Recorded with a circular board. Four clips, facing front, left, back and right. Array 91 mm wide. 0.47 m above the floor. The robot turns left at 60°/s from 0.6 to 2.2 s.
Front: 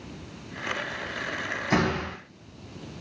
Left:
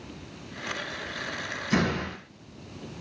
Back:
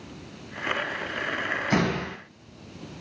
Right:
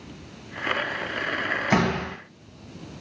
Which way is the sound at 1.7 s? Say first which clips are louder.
Right 2 dB, front 1 dB; 80° right.